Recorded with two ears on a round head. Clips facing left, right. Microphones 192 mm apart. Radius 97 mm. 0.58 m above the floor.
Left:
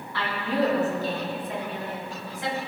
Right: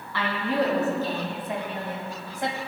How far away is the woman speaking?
About 4.5 m.